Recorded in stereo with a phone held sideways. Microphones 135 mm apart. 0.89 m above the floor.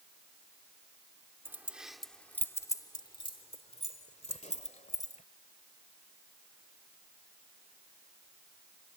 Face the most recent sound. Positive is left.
turn(degrees=65)  # may be behind; listen again after turning